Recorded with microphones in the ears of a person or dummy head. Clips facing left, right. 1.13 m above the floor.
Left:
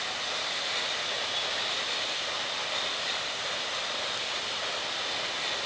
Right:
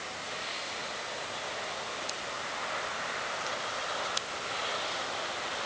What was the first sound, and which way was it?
Only background noise.